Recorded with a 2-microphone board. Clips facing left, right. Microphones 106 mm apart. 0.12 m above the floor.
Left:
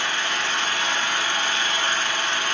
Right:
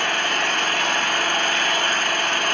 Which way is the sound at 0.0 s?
60° right (ahead or behind).